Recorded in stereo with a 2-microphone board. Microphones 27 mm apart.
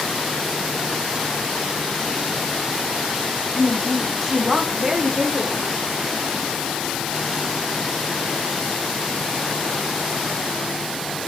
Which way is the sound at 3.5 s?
15° left (ahead or behind).